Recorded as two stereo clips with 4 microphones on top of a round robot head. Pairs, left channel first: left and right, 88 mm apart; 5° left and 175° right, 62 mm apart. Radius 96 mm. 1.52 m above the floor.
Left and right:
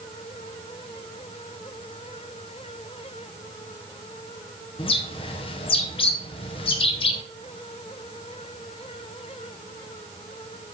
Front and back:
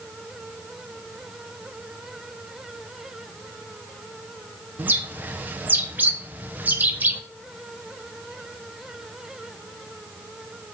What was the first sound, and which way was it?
A bird, 125° left.